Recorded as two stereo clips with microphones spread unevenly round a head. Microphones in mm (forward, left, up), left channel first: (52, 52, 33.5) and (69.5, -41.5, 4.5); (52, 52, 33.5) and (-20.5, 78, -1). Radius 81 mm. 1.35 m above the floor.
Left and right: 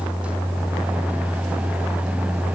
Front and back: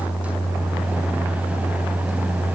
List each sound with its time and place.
Only background noise.